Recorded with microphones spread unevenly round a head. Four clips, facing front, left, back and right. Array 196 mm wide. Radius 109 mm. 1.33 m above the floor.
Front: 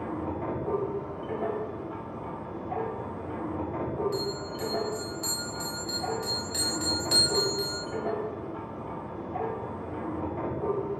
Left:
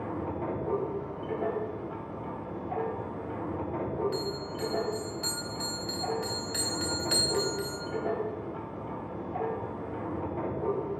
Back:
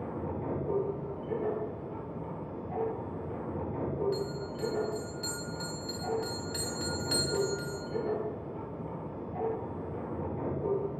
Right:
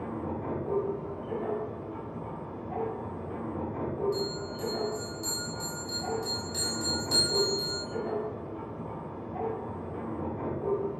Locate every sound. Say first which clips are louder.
0.0 s a machine running: left 1 dB, front 4 dB; 30° left, 3.5 m
4.1 s a bell: even, front 3 dB; 90° left, 3.5 m